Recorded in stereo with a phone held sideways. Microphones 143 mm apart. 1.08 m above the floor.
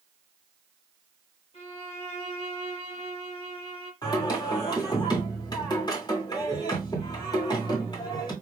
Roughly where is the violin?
Left.